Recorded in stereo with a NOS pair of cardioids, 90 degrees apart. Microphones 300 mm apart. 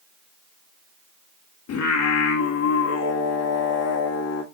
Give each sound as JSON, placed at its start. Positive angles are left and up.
{"t": 1.7, "sound": "singing", "azimuth_deg": 55, "distance_m": 2.5}